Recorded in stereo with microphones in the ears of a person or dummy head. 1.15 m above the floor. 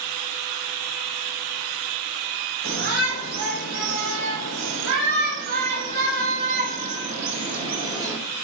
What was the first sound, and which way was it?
A shout, 75° right (ahead or behind).